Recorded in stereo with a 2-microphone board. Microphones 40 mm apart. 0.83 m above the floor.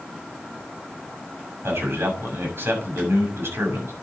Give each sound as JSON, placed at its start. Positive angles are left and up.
{"t": 1.6, "sound": "a man speaking", "side_deg": -80, "distance_m": 6.5}